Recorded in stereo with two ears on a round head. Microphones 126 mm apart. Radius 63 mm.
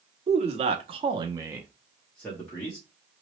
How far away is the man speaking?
About 0.9 m.